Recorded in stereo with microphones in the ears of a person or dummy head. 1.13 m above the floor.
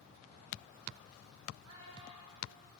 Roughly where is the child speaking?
Right.